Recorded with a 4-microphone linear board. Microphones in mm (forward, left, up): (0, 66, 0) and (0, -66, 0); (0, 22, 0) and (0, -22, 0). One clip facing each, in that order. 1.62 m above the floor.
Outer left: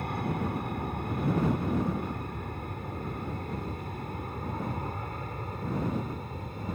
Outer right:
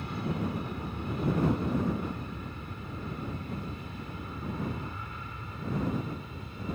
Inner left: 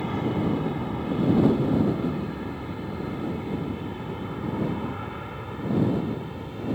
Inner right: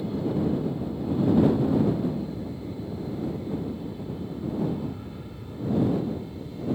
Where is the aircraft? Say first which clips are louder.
Outer left 1 dB, inner left 1 dB; 50° left (ahead or behind); by 6.8 s 45° left (ahead or behind).